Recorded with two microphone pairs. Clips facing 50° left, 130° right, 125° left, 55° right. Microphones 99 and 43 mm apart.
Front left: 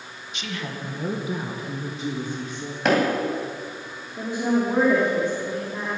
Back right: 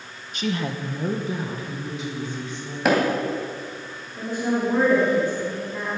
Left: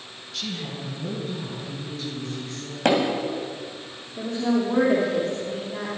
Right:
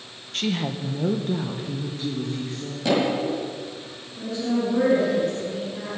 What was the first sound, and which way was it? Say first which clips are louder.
A woman speaking: back right 7 dB, right 6 dB; 90° right.